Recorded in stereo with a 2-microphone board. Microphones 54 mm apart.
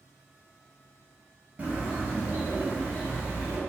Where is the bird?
25° right (ahead or behind), 1.2 m.